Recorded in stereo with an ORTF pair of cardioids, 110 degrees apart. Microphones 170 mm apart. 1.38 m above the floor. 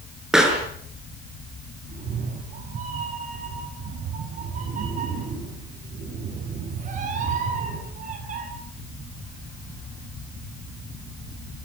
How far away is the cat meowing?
About 8 m.